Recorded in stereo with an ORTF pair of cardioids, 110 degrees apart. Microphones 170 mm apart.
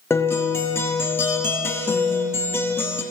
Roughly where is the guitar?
Ahead.